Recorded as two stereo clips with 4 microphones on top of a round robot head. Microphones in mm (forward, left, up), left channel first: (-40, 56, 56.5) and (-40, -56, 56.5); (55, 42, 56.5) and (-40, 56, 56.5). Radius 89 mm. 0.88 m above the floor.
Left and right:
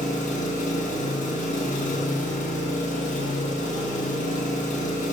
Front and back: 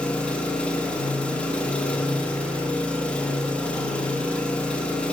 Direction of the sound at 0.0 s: 70° left.